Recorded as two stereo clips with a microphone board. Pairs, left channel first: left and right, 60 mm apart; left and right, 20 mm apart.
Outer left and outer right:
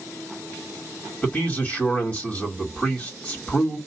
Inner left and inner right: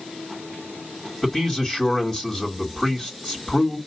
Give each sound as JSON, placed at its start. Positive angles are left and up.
{"t": 1.2, "sound": "a man speaking", "side_deg": 30, "distance_m": 2.5}